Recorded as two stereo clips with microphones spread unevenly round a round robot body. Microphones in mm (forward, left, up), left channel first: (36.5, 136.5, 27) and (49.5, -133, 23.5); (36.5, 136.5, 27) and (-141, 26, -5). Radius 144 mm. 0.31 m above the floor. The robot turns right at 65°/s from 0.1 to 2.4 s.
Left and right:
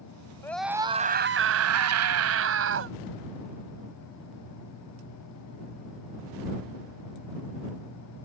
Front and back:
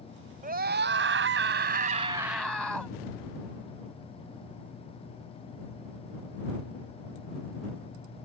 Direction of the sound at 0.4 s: 170° left.